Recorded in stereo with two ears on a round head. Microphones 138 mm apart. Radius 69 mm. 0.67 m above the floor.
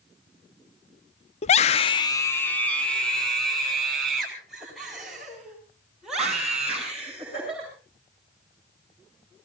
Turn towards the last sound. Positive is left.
turn(degrees=-5)  # may be behind; listen again after turning